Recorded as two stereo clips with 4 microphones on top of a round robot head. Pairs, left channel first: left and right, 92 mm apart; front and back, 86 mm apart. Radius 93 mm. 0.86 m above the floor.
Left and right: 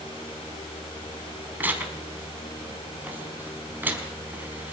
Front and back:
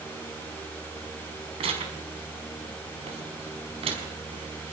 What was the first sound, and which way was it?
Tearing paper, 160° right.